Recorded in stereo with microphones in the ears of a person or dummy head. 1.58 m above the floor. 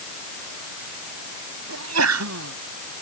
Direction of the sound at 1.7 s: 85° right.